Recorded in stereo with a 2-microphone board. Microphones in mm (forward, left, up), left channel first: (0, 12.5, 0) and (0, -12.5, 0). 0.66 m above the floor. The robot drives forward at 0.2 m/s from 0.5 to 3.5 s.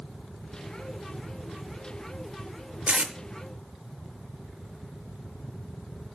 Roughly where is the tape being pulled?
Right.